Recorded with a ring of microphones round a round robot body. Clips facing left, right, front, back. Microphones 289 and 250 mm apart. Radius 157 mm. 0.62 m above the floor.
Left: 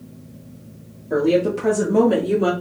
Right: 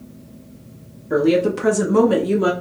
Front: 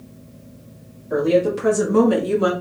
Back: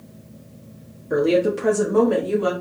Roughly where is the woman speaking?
Behind right.